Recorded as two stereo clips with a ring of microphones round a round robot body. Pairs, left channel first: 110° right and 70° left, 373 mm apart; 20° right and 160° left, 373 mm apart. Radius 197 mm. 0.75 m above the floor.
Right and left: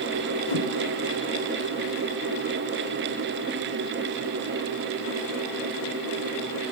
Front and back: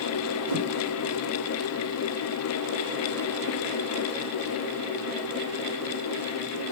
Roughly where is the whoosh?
Behind.